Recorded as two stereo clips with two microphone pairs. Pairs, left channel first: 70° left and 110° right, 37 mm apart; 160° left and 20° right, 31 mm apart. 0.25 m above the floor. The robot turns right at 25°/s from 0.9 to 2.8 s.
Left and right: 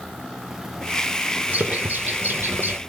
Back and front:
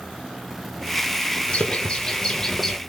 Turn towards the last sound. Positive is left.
turn(degrees=-115)